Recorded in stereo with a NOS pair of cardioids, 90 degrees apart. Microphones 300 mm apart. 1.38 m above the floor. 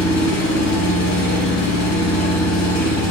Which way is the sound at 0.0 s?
65° left.